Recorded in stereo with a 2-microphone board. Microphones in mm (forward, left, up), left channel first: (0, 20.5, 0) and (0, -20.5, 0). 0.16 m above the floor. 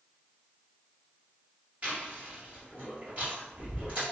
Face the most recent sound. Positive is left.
turn(degrees=-35)  # may be behind; listen again after turning